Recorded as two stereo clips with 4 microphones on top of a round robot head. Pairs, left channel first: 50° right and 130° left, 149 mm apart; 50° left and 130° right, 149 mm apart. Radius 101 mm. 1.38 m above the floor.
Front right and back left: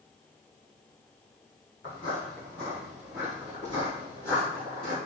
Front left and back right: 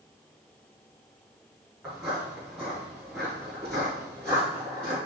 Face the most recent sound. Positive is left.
turn(degrees=130)